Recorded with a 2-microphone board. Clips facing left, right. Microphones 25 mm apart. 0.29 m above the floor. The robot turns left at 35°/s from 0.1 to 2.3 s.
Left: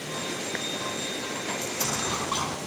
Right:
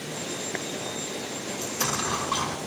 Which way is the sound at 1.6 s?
25° right (ahead or behind).